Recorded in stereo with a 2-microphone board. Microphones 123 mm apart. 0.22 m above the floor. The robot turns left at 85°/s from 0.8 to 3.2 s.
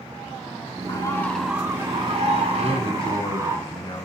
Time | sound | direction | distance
0.9 | a bird | 45° left | 1.2 m
2.6 | a man speaking | 100° left | 1.7 m